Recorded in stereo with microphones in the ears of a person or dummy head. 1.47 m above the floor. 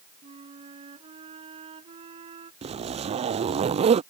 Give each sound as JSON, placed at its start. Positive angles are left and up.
{"t": 0.2, "sound": "a flute", "side_deg": -30}
{"t": 2.6, "sound": "a zipper", "side_deg": -30}